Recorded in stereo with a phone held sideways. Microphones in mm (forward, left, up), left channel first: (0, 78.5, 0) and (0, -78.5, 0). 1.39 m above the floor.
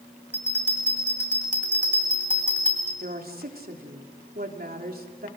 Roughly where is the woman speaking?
Right.